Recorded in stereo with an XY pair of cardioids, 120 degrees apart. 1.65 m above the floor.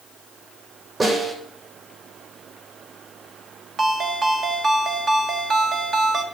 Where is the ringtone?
45° right, 1.6 m.